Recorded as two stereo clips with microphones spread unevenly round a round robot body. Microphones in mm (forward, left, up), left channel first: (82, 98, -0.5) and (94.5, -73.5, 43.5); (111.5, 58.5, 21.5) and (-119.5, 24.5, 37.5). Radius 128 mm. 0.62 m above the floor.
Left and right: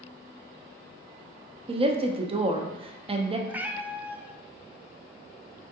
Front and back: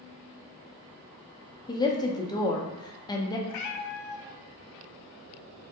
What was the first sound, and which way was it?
A woman speaking, 35° right.